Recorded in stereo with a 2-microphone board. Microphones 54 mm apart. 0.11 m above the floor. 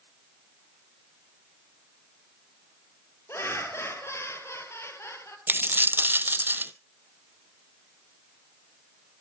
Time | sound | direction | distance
3.3 | laughter | 50° left (ahead or behind) | 3 m
5.5 | a dropped coin | 40° right (ahead or behind) | 0.6 m